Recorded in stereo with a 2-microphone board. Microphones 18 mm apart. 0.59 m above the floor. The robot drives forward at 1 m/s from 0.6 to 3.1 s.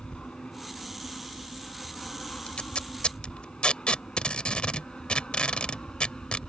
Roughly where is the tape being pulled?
Left.